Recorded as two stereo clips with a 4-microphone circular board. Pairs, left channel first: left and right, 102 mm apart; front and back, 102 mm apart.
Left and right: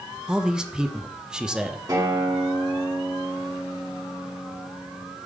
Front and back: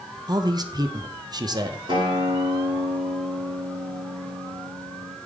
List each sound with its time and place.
0.3 s a man speaking: 170° right, 0.6 m
1.9 s a guitar: 140° right, 2.5 m